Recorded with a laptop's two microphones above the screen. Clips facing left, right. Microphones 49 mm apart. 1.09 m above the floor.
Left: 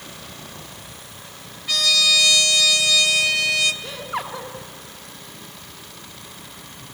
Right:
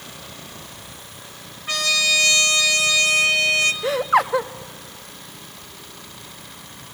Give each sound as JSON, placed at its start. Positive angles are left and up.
{"t": 1.7, "sound": "a trumpet", "side_deg": -30, "distance_m": 0.9}
{"t": 3.8, "sound": "laughter", "side_deg": -70, "distance_m": 0.9}